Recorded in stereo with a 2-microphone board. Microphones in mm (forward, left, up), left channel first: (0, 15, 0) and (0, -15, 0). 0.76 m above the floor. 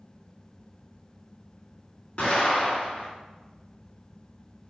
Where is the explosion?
60° left (ahead or behind), 1.8 m.